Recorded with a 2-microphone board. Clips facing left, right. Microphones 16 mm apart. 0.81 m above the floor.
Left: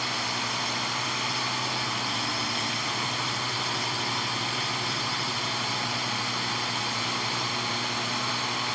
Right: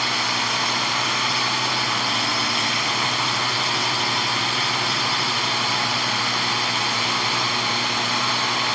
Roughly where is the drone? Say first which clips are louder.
Right 7 dB; right.